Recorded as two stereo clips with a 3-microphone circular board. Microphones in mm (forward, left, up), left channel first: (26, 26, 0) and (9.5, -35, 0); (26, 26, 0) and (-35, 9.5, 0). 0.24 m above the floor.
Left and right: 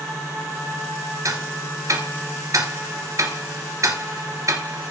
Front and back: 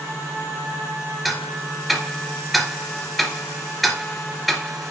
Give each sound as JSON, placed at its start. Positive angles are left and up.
{"t": 1.2, "sound": "ticking", "azimuth_deg": -75, "distance_m": 1.9}